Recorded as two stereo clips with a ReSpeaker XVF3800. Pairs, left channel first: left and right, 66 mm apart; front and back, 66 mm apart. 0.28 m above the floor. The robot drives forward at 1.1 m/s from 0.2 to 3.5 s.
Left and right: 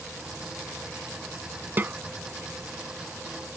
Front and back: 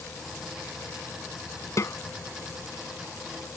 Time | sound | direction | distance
1.8 | a snare drum | 30° right | ?